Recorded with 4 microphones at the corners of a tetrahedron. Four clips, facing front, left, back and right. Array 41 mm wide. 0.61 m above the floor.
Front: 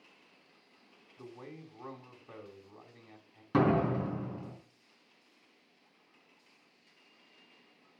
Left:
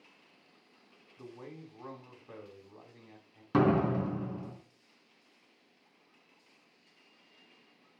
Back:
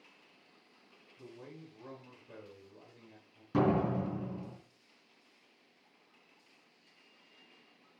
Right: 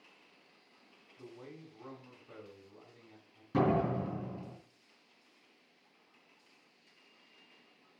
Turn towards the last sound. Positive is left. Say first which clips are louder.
# left 3 dB, front 2 dB
turn(degrees=55)